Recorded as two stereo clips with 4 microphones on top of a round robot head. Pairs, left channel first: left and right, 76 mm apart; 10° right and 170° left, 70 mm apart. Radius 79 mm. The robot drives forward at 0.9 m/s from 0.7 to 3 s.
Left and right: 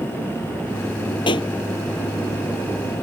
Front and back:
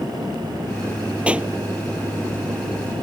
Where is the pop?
95° left; by 1.5 s 100° left.